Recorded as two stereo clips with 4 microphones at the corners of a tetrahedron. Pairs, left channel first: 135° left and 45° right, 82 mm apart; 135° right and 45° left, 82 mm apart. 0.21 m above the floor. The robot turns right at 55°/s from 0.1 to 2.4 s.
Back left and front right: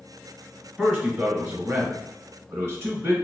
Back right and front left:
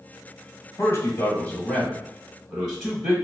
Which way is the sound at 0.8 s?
135° right.